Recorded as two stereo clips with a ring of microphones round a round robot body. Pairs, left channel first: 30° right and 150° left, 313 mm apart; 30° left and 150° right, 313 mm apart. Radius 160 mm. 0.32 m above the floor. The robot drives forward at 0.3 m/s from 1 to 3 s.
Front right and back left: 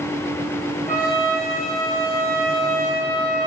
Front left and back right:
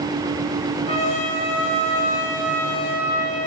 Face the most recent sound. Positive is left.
turn(degrees=90)